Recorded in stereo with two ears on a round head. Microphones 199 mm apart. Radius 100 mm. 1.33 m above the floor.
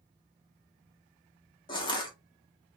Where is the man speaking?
I don't hear a man speaking.